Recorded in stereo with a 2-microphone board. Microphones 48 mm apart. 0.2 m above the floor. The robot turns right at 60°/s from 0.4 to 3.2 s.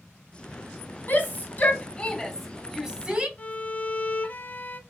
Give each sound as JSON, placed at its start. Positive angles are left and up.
{"t": 1.1, "sound": "a shout", "side_deg": 35, "distance_m": 1.2}
{"t": 3.4, "sound": "a violin", "side_deg": 30, "distance_m": 0.5}